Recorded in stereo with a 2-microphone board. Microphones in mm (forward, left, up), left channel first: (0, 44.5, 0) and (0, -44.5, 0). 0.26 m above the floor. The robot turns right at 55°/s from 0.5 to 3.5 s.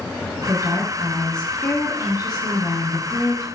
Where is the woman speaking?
40° right, 2.5 m; by 3.5 s 125° left, 2.5 m.